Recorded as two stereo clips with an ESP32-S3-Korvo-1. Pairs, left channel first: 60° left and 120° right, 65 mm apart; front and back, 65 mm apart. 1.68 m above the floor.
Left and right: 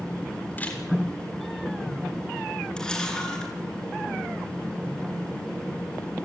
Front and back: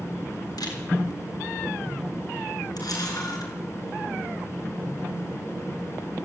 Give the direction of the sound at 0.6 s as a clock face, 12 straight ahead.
12 o'clock.